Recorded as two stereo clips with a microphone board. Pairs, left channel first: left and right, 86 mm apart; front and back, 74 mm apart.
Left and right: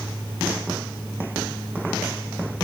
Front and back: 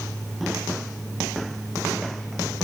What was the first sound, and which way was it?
Only background noise.